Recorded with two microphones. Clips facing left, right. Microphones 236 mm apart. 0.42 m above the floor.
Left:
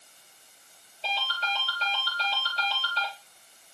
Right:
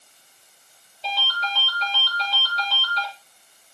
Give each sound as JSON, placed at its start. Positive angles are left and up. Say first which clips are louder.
{"t": 1.0, "sound": "a ringtone", "louder": "right 3 dB", "side_deg": 30, "distance_m": 5.0}